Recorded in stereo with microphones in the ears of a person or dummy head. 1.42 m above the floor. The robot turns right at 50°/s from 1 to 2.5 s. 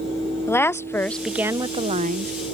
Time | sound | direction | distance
0.5 | a woman speaking | 170° left | ?